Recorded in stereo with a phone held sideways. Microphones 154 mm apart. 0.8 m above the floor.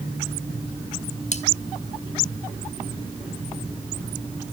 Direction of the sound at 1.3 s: 50° left (ahead or behind).